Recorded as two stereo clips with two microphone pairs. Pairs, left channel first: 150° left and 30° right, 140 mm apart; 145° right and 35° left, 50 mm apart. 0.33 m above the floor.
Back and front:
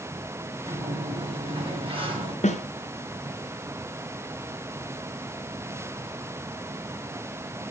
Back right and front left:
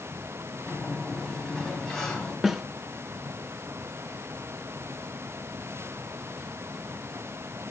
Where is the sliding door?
70° right, 3 m.